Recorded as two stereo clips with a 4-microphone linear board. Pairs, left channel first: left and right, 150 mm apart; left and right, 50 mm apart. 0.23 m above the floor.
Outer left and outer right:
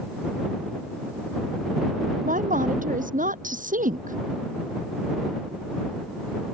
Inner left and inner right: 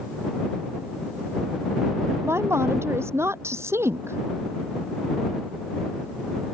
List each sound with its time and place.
2.2 s a woman speaking: 60° right (ahead or behind)